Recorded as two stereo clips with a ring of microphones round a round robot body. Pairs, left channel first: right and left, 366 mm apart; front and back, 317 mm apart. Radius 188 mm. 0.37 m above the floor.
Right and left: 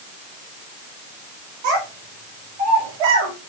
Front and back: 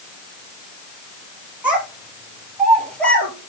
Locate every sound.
1.6 s a child speaking: 95° left, 5.5 m; by 3.3 s 85° left, 5 m